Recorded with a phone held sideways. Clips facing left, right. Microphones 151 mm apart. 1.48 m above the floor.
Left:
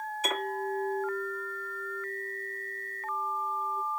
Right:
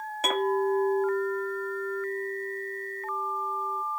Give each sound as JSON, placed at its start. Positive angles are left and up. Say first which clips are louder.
{"t": 0.2, "sound": "a clink", "louder": "right 9 dB", "side_deg": -70, "distance_m": 1.6}